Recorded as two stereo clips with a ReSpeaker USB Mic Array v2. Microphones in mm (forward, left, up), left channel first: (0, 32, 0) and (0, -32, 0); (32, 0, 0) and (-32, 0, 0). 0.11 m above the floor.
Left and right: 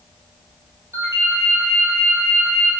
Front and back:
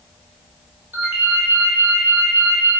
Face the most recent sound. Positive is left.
turn(degrees=-125)